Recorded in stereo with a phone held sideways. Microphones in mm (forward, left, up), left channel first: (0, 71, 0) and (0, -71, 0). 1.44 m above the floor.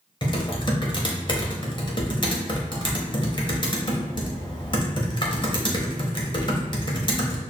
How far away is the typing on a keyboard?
About 1.0 m.